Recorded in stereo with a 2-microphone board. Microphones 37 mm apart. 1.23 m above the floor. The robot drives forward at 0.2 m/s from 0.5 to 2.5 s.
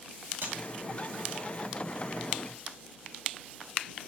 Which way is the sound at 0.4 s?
85° right.